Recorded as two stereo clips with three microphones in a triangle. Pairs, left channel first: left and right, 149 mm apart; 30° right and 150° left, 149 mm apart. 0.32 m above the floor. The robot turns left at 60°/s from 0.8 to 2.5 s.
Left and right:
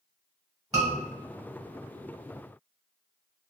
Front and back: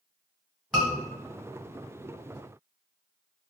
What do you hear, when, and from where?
0.7 s a scream: 125° right, 1.4 m; by 0.9 s 135° right, 1.4 m